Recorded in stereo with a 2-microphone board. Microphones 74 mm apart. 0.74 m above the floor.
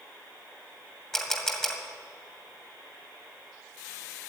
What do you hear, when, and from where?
1.1 s a camera shutter: 5° left (ahead or behind), 2 m